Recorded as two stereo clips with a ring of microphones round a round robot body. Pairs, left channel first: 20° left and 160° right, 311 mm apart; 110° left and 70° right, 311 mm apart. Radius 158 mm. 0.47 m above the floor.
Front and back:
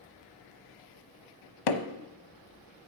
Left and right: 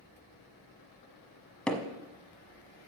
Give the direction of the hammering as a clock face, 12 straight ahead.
11 o'clock.